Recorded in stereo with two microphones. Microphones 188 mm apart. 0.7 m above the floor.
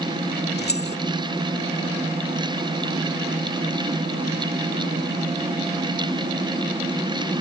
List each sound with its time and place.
0.6 s keys jangling: 60° left (ahead or behind)